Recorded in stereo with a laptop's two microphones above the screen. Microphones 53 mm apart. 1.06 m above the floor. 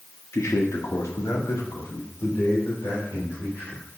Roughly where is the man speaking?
Left.